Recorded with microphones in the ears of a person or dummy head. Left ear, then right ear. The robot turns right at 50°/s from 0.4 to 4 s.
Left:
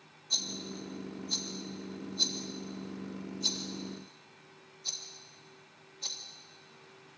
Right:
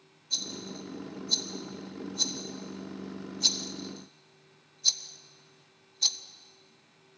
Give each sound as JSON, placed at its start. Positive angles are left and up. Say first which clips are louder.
{"t": 0.3, "sound": "a rattle", "louder": "even", "side_deg": 40, "distance_m": 1.7}